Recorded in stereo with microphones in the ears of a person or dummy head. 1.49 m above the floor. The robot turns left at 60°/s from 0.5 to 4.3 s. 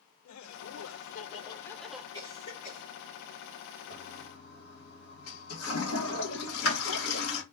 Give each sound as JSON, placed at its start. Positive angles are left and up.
{"t": 0.2, "sound": "laughter", "azimuth_deg": 90, "distance_m": 0.7}
{"t": 2.1, "sound": "a cough", "side_deg": 10, "distance_m": 1.5}
{"t": 3.9, "sound": "a toilet flushing", "side_deg": 70, "distance_m": 1.5}